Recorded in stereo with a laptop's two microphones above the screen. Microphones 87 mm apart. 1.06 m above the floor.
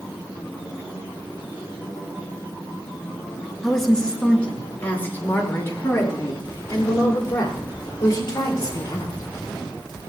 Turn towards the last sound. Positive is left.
turn(degrees=45)  # may be behind; listen again after turning